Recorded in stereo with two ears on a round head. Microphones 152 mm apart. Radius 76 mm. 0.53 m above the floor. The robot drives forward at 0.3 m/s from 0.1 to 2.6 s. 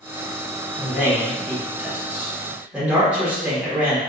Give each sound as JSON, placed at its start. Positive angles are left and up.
{"t": 0.8, "sound": "a man speaking", "side_deg": -10, "distance_m": 0.9}